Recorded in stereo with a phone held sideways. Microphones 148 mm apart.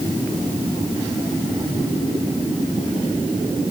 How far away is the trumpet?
I don't hear a trumpet.